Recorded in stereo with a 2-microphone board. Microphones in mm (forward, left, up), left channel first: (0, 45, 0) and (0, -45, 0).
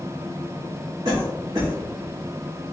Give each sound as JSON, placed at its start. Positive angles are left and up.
{"t": 1.1, "sound": "a cough", "side_deg": -45, "distance_m": 1.4}